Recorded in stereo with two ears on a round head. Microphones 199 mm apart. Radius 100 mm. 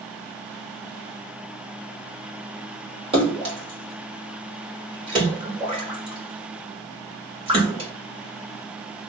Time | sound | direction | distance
3.1 | a splash | 25° right (ahead or behind) | 1.7 m